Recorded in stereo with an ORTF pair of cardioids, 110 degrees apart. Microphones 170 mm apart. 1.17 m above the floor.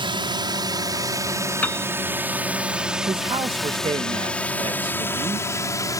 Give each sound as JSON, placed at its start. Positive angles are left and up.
{"t": 0.0, "sound": "a drone", "azimuth_deg": -30}
{"t": 1.6, "sound": "a piano", "azimuth_deg": 10}
{"t": 3.1, "sound": "a man speaking", "azimuth_deg": -30}